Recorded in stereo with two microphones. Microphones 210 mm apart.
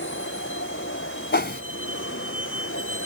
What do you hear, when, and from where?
0.0 s a vehicle: 70° left (ahead or behind); by 3.1 s 75° left (ahead or behind)
1.3 s a whoosh: 55° left (ahead or behind)